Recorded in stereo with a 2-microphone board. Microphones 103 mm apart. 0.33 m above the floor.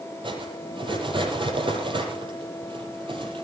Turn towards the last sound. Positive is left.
turn(degrees=-55)  # may be behind; listen again after turning